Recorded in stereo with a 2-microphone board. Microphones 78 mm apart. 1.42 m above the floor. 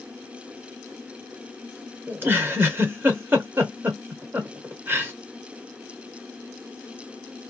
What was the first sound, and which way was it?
A giggle, 30° right (ahead or behind).